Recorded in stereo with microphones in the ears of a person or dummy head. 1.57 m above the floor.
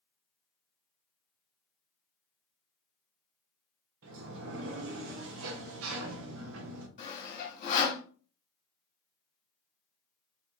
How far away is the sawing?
About 1.2 m.